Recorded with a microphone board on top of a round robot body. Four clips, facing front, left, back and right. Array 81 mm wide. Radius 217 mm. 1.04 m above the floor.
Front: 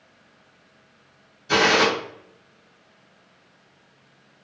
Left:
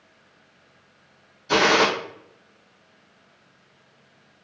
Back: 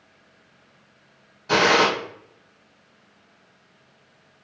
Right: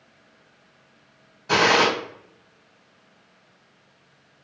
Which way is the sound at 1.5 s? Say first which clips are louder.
Even, back 1 dB; 130° right.